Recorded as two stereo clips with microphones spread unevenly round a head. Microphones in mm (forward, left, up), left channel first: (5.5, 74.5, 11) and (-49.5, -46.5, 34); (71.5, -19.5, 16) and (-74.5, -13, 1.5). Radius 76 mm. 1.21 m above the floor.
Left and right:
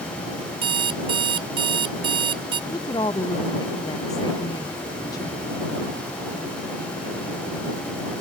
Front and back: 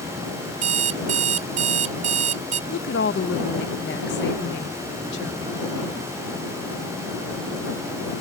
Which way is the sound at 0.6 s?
150° right.